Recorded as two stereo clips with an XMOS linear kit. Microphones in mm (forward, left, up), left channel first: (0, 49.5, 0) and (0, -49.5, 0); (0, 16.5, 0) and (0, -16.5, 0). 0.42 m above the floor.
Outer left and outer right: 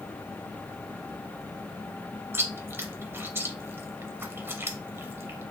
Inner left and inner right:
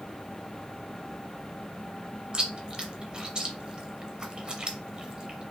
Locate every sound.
2.3 s chewing: 25° right (ahead or behind), 0.7 m